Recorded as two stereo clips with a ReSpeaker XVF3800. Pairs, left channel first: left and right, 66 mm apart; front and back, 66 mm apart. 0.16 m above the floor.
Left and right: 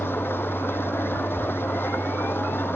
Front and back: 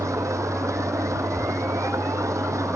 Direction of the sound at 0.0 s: 145° left.